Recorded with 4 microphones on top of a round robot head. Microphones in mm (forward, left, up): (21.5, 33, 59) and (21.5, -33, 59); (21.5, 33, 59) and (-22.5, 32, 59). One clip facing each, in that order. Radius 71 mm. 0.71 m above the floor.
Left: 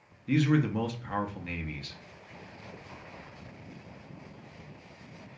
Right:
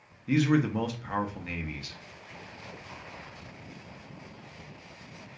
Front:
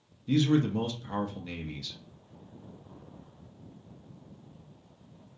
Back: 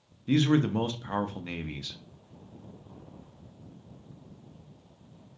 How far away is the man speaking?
About 0.5 m.